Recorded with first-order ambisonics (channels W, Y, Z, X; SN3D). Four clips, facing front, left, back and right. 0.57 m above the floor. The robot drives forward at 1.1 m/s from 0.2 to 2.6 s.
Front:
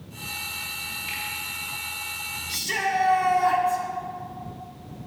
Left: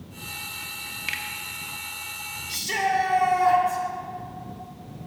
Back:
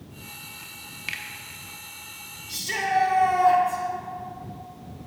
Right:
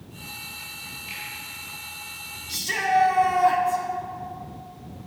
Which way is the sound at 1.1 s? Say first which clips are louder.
Left 7 dB, back 3 dB; 125° left.